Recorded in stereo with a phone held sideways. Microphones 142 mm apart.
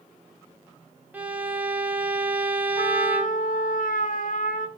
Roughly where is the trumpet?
Left.